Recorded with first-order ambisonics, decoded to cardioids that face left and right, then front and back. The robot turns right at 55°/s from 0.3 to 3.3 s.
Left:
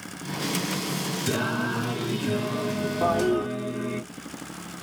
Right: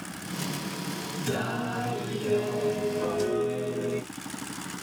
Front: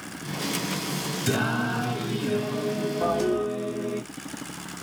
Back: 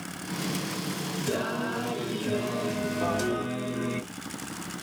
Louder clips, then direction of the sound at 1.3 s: Left 3 dB, front 4 dB; 40° left.